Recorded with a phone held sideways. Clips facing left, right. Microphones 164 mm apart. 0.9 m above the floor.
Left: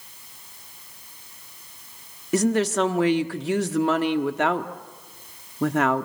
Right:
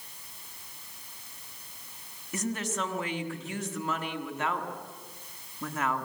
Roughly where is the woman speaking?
Left.